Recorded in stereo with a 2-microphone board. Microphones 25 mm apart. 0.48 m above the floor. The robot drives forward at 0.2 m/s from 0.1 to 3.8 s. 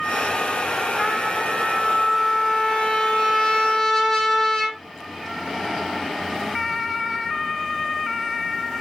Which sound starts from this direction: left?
A trumpet, at 1.0 s.